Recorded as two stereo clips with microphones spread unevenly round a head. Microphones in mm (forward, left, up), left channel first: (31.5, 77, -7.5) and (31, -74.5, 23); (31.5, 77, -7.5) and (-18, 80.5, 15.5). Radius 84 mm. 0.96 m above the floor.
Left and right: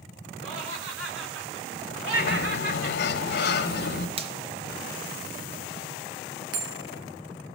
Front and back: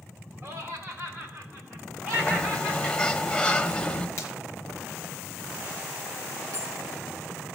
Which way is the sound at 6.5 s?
115° right.